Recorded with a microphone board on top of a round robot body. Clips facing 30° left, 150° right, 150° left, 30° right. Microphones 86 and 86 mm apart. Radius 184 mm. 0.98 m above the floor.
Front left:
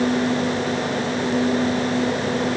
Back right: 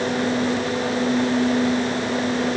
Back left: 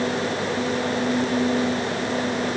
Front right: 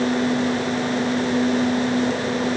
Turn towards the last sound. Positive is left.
No sound to turn to.